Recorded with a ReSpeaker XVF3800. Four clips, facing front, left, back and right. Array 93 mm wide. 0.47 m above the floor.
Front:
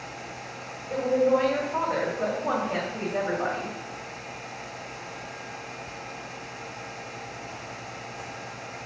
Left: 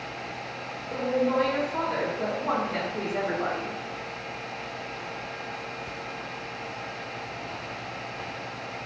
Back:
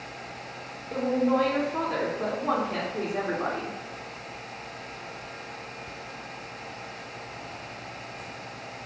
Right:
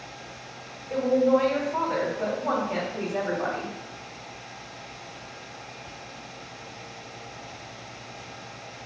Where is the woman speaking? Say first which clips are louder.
Right 4 dB, front 2 dB; 50° right, 3 m.